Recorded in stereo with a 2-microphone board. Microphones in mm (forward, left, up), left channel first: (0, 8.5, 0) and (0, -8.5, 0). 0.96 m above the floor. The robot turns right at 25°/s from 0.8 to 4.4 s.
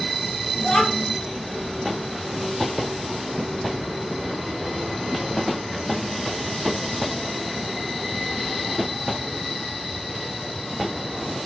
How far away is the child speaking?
About 0.5 m.